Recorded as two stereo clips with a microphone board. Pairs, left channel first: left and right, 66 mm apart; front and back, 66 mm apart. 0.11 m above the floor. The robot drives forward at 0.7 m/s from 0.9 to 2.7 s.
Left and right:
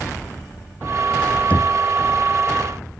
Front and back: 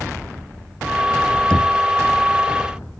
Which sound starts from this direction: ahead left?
Knocking, at 1.5 s.